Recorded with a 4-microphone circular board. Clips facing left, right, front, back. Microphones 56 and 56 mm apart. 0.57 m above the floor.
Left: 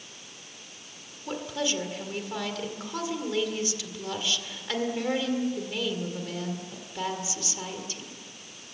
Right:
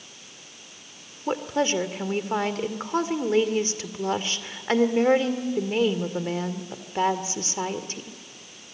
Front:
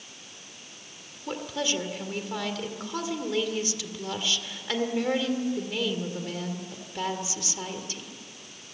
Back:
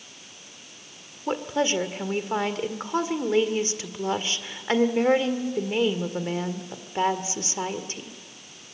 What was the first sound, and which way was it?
A woman speaking, 130° right.